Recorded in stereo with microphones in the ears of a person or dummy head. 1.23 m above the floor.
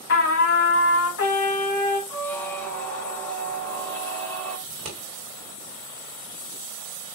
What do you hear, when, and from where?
0.1 s a trumpet: 60° left (ahead or behind), 1.8 m
2.1 s a squeak: 10° left (ahead or behind), 0.8 m
4.7 s scissors: 45° right (ahead or behind), 1.5 m